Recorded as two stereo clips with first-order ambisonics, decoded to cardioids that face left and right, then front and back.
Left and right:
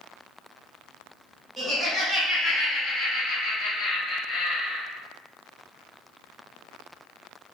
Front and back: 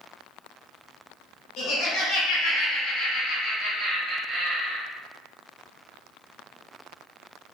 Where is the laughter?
5° right, 1.4 m; by 4.8 s 120° left, 1.4 m.